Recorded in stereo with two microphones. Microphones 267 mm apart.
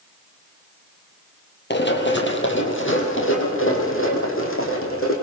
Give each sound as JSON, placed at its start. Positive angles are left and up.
{"t": 1.7, "sound": "running footsteps", "side_deg": 40, "distance_m": 2.0}